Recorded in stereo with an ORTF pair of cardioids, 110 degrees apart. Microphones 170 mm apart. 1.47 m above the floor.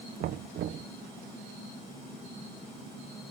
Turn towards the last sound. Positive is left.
turn(degrees=-65)